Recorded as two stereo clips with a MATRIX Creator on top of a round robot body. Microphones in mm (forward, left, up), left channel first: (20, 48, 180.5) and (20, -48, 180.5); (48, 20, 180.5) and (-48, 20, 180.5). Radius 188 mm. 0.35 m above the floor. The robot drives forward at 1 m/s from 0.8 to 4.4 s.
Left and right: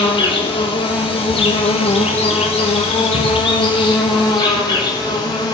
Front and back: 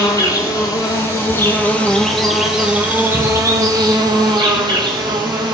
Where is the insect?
55° left, 2.5 m; by 5.5 s 135° left, 3 m.